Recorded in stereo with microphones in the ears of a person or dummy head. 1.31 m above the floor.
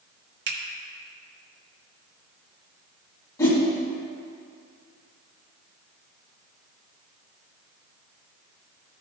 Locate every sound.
0.5 s a finger snap: 65° right (ahead or behind), 2 m
3.4 s a whoosh: 15° left (ahead or behind), 2.5 m